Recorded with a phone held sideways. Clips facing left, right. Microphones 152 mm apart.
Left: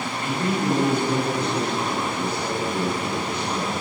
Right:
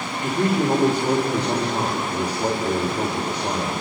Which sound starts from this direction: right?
A man speaking, at 0.2 s.